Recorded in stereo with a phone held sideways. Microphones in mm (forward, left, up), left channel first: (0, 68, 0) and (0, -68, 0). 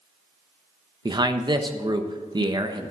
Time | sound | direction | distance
1.1 | a man speaking | 30° right (ahead or behind) | 1.0 m